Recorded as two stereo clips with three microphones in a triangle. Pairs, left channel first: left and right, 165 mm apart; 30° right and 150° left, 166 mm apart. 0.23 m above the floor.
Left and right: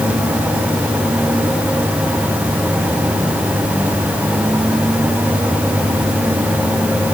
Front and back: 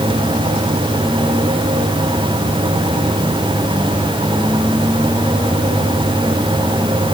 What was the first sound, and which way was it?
Only background noise.